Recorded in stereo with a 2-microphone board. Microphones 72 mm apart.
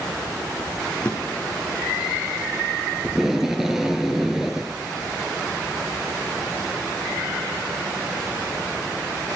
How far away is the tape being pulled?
About 1.0 m.